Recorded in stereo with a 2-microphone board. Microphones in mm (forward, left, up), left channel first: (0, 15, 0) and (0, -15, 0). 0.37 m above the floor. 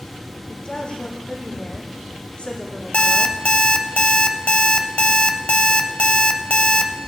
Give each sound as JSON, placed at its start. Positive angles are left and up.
{"t": 0.5, "sound": "a woman speaking", "side_deg": 40, "distance_m": 3.5}
{"t": 2.9, "sound": "an alarm clock", "side_deg": 45, "distance_m": 0.7}